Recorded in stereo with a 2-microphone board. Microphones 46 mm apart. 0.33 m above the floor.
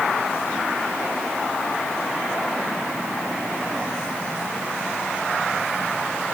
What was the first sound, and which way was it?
Only background noise.